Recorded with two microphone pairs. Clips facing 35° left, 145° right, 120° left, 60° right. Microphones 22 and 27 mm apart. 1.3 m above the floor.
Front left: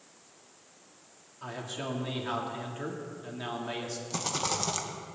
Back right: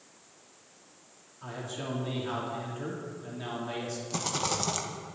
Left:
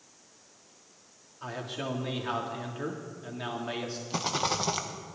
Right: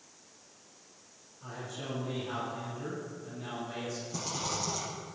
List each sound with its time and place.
1.4 s a man speaking: 105° left, 3 m
4.1 s a rattle: 125° left, 1.4 m